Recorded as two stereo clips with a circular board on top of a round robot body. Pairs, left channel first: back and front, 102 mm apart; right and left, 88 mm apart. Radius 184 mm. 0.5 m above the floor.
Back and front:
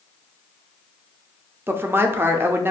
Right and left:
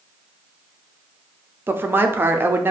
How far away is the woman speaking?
About 0.7 m.